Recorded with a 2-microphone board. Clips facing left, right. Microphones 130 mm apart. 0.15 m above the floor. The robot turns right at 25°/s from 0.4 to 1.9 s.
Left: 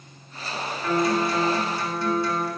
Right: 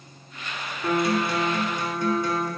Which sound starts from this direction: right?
A guitar, at 0.8 s.